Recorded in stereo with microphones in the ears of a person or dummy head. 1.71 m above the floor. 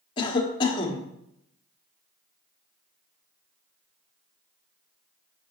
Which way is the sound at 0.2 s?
25° left (ahead or behind).